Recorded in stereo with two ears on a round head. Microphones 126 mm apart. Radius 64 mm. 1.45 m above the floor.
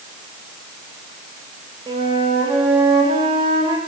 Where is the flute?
40° right (ahead or behind), 1.6 m.